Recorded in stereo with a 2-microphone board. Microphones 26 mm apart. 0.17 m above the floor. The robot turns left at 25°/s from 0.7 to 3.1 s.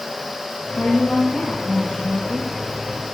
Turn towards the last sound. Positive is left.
turn(degrees=40)